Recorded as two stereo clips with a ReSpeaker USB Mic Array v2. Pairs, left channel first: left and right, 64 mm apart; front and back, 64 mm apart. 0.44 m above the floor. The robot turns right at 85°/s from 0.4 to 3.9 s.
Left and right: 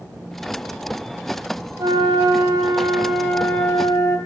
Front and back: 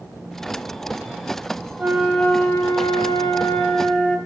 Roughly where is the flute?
Behind right.